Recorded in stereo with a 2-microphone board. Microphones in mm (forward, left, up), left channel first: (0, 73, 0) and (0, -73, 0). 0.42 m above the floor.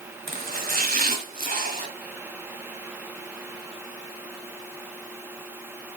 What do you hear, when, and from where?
0.3 s chopping: 75° right (ahead or behind), 1.5 m